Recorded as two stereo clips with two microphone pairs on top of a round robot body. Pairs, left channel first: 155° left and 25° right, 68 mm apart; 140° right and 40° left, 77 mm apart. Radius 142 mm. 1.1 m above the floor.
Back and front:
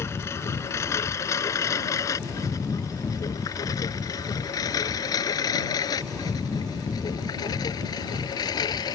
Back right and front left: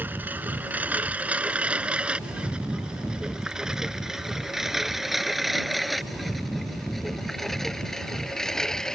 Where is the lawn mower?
105° left; by 8.9 s 135° left.